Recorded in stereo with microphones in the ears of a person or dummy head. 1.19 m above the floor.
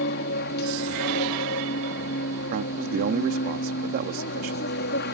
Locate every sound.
0.0 s an aircraft: 55° left (ahead or behind)
2.5 s a man speaking: 50° right (ahead or behind)